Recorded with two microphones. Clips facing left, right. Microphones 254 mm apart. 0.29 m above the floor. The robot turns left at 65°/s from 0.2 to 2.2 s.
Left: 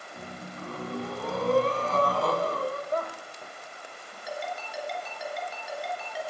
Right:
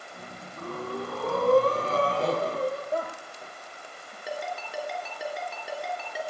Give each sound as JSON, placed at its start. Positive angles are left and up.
{"t": 0.6, "sound": "breathing", "azimuth_deg": -50, "distance_m": 2.5}
{"t": 2.9, "sound": "a woman speaking", "side_deg": -5, "distance_m": 1.4}
{"t": 4.3, "sound": "a ringtone", "side_deg": -60, "distance_m": 3.0}